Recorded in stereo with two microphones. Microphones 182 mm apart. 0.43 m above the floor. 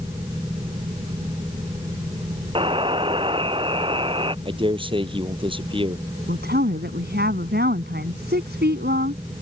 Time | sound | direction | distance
2.5 | a buzzer | 30° right (ahead or behind) | ?
4.5 | a man speaking | 30° right (ahead or behind) | ?
6.3 | a woman speaking | 75° right (ahead or behind) | ?